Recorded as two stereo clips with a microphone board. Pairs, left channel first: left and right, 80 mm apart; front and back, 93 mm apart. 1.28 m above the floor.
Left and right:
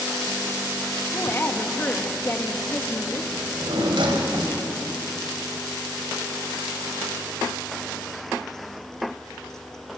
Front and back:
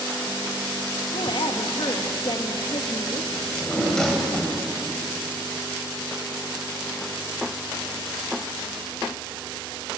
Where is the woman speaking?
25° left, 1.9 m.